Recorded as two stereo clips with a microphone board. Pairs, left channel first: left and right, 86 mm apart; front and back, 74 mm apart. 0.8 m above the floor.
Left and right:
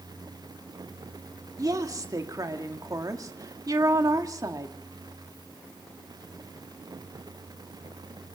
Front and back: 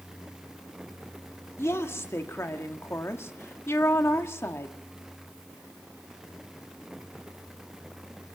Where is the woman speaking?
50° right, 1.8 m.